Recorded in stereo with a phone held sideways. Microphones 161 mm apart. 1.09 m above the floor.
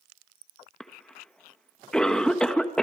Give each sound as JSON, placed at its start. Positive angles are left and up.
{"t": 0.8, "sound": "a cough", "side_deg": 5, "distance_m": 1.2}